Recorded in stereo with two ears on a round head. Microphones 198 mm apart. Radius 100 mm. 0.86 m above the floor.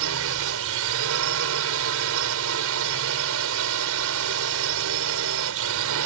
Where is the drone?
70° right (ahead or behind).